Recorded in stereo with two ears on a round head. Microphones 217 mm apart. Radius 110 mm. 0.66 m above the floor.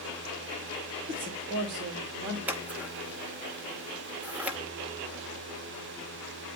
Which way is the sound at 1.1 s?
30° right (ahead or behind).